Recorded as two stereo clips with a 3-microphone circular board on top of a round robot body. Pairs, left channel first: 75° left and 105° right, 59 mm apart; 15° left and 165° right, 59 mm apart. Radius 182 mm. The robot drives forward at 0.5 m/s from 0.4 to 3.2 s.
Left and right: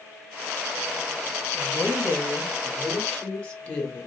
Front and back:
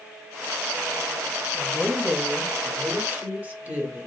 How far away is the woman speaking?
About 1.4 m.